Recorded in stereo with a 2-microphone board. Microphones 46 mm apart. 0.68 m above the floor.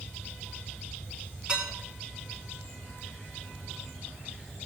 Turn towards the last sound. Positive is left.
turn(degrees=-20)  # may be behind; listen again after turning